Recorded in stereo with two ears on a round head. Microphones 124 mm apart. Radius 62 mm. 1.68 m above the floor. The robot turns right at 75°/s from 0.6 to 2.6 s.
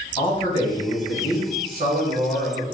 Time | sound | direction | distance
0.2 | a man speaking | 145° left | 1.6 m